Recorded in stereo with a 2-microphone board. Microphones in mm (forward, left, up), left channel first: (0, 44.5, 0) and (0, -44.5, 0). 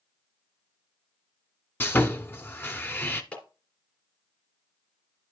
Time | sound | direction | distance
1.8 | sawing | 25° left (ahead or behind) | 1.1 m
3.3 | a clap | 10° left (ahead or behind) | 3 m